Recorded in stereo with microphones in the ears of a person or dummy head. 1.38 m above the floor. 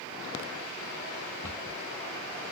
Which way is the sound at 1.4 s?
10° left (ahead or behind).